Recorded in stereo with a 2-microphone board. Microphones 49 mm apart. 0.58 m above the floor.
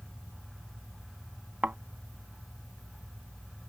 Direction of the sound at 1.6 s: 30° right (ahead or behind).